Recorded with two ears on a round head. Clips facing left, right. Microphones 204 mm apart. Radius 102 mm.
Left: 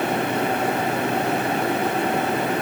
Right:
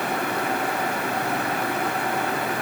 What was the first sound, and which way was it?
Only background noise.